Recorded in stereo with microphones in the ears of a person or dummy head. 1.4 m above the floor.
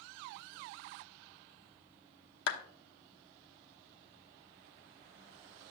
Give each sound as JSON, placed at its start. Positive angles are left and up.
{"t": 2.5, "sound": "a clap", "side_deg": 75, "distance_m": 0.9}